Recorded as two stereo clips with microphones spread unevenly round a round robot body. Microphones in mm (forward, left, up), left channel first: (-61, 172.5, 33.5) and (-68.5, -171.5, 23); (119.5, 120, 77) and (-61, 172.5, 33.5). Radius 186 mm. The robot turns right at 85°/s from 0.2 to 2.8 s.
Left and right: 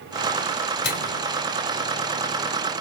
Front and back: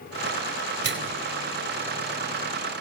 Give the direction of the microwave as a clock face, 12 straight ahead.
7 o'clock.